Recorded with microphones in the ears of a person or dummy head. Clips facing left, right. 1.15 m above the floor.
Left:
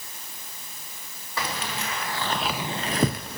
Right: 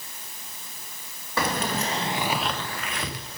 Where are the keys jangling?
50° right (ahead or behind), 0.9 m; by 3.4 s 60° left (ahead or behind), 0.8 m.